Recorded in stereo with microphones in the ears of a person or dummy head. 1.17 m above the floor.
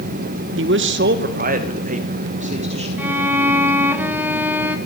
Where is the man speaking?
60° right (ahead or behind), 1.0 m; by 2.9 s 35° right (ahead or behind), 2 m.